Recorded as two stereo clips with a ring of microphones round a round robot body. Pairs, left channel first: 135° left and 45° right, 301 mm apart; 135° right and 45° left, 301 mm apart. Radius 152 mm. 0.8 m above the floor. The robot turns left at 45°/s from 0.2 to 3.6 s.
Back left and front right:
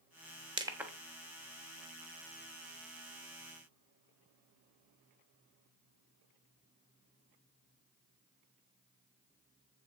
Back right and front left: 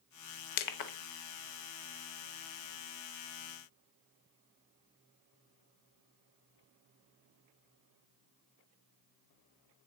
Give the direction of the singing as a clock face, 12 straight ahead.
No singing in this recording.